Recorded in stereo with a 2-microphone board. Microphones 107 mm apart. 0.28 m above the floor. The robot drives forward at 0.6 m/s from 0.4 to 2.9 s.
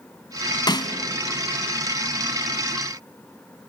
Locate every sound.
0.7 s a snare drum: 45° left (ahead or behind), 1.0 m; by 0.9 s 40° left (ahead or behind), 1.1 m